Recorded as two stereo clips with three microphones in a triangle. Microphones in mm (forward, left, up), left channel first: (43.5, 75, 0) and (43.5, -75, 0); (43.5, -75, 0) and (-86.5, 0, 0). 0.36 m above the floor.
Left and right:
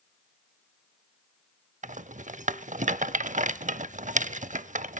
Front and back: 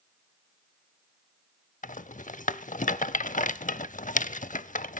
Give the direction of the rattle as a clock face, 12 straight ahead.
2 o'clock.